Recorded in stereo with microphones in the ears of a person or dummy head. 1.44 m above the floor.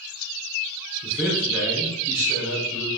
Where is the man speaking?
15° right (ahead or behind), 4.5 m.